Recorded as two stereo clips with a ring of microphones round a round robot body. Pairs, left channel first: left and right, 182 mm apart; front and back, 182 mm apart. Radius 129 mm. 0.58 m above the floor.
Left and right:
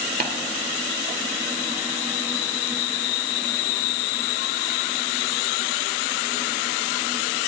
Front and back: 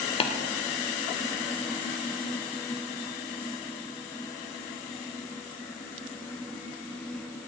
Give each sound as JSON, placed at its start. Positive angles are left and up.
{"t": 0.2, "sound": "tapping", "azimuth_deg": -55, "distance_m": 1.9}